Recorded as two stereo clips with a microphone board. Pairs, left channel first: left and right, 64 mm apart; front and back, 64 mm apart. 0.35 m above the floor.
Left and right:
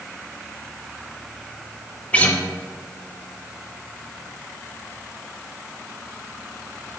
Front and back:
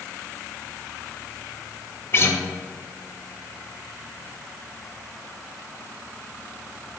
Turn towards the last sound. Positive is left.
turn(degrees=30)